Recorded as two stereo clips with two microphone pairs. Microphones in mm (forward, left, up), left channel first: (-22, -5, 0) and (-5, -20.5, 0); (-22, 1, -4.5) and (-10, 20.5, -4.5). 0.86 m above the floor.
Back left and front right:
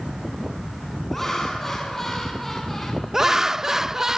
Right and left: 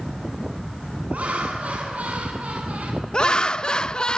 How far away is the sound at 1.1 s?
About 7 m.